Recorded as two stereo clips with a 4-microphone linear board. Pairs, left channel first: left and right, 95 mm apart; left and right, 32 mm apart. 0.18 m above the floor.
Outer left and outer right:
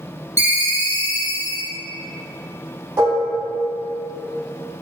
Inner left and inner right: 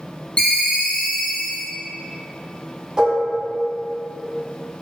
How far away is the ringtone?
About 0.7 m.